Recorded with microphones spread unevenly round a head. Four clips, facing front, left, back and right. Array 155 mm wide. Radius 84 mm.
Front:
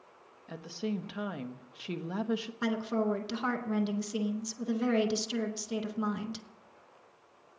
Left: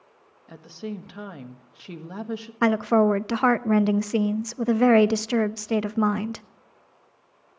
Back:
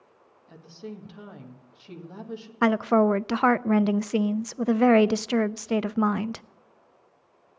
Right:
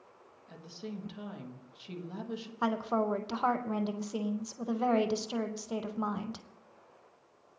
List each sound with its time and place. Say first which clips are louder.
0.5 s a woman speaking: left 8 dB, front 5 dB; 45° left, 1.4 m
2.6 s a woman speaking: left 11 dB, back 12 dB; 110° left, 0.6 m